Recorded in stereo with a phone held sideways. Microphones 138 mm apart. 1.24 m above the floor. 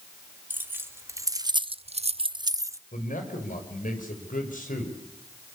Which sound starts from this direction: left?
A man speaking, at 2.9 s.